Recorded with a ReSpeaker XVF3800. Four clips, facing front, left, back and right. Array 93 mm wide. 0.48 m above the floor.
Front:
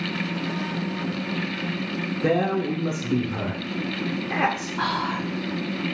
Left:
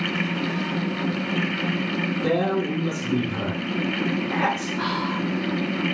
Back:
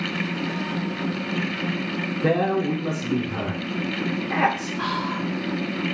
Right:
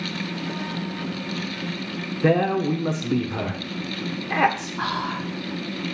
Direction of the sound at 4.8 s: 15° right.